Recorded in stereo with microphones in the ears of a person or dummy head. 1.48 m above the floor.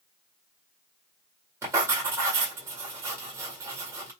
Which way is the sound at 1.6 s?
15° right (ahead or behind).